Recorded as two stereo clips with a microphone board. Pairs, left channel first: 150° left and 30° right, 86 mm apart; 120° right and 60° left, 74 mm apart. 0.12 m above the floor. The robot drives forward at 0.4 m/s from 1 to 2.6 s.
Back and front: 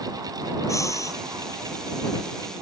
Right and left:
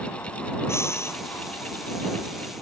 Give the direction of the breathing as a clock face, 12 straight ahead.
6 o'clock.